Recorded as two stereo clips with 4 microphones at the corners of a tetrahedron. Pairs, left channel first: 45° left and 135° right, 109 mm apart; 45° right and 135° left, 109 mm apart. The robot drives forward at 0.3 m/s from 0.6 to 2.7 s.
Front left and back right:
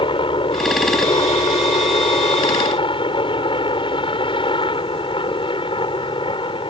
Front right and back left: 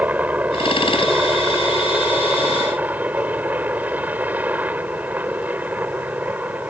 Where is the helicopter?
60° left; by 6.7 s 65° left.